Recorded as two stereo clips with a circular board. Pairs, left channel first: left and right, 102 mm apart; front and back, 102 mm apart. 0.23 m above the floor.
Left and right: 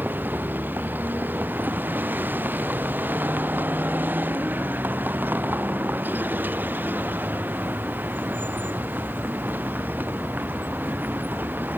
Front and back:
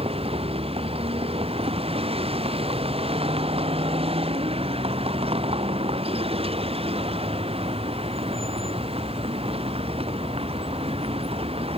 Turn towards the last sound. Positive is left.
turn(degrees=-165)